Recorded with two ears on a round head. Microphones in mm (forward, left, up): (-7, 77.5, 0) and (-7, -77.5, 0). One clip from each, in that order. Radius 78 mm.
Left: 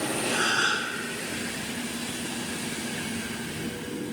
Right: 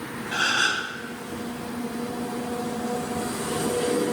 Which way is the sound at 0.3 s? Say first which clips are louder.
Right 3 dB; 65° right (ahead or behind).